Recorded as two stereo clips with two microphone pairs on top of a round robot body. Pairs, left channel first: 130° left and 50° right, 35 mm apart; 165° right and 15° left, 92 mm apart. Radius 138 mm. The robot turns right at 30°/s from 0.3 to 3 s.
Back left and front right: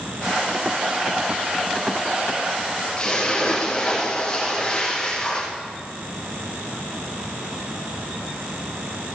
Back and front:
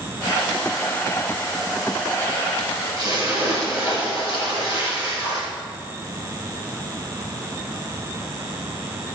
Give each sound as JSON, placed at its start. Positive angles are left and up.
{"t": 3.0, "sound": "a splash", "azimuth_deg": 65, "distance_m": 4.0}